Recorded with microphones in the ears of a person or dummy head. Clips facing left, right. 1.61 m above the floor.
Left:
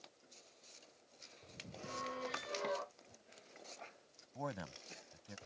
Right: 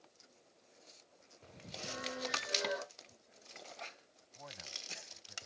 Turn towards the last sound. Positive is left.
turn(degrees=85)